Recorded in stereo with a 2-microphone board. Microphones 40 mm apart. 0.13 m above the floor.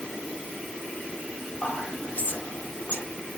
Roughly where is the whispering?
Left.